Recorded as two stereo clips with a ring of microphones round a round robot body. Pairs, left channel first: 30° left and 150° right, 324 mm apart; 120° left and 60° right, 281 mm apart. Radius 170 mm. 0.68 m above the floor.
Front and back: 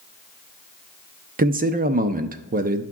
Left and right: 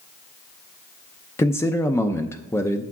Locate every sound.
1.4 s a man speaking: 170° right, 0.6 m